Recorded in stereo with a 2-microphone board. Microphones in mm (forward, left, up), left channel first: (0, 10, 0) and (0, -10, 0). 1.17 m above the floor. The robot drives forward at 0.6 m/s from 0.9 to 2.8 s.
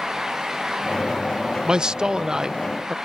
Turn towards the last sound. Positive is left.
turn(degrees=-25)  # may be behind; listen again after turning